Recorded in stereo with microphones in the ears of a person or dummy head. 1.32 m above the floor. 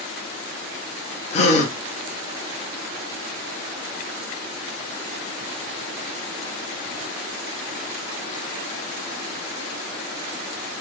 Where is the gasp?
40° left (ahead or behind), 0.6 m.